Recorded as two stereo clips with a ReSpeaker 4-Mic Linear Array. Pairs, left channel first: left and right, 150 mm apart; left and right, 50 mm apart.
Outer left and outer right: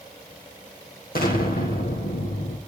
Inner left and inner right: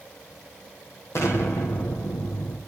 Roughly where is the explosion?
Left.